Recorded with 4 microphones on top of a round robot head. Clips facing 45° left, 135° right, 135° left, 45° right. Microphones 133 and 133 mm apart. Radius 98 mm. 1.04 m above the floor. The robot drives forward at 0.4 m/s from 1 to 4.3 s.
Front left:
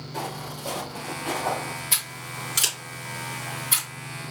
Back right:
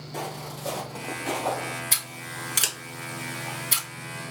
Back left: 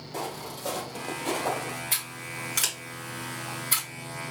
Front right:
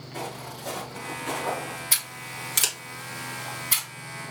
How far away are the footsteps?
About 2.5 m.